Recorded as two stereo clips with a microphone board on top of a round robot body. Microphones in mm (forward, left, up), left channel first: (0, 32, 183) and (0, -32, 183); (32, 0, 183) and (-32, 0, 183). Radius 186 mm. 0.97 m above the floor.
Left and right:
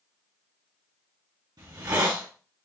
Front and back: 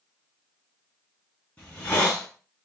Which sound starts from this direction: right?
A hiss, at 1.6 s.